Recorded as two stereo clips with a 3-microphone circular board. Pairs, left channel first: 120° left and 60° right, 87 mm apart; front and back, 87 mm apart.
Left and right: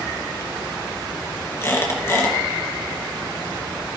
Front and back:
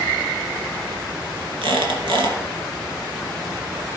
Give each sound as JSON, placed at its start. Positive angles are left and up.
{"t": 1.6, "sound": "a squeak", "azimuth_deg": 175, "distance_m": 2.5}